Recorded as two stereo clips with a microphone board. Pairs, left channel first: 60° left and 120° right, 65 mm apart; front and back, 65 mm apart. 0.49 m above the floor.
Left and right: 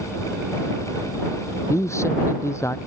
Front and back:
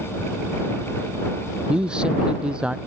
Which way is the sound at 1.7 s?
105° left.